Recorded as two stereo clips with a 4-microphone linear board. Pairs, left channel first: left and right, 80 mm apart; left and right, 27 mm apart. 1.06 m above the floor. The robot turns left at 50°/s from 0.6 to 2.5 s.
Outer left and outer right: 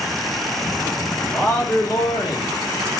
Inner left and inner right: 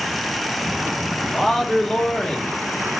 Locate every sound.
1.3 s a man speaking: 165° left, 1.0 m; by 2.6 s 110° left, 1.0 m